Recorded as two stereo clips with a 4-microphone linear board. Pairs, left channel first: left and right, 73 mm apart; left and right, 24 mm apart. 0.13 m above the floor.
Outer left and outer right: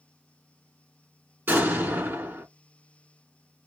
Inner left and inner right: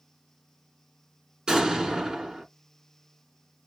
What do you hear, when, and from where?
1.5 s an explosion: 30° right (ahead or behind), 1.7 m